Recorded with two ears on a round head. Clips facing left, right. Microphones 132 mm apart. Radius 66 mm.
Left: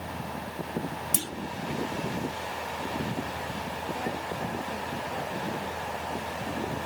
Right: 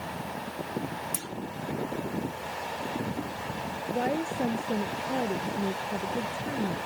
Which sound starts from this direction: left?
A clunk, at 1.1 s.